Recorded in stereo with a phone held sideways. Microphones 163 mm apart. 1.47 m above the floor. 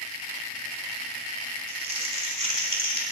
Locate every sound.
1.7 s crumpling: 40° right (ahead or behind), 3.5 m